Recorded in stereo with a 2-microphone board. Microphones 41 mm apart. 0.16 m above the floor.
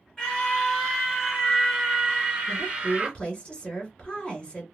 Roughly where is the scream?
Centre.